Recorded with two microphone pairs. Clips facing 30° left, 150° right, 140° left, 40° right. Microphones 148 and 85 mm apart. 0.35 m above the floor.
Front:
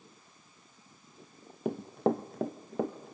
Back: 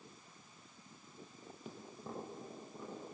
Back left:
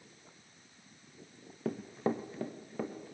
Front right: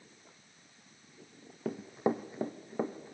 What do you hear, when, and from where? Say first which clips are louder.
1.6 s running footsteps: front 20 dB, front right 2 dB; 50° left, 0.8 m; by 3.1 s 25° left, 2.5 m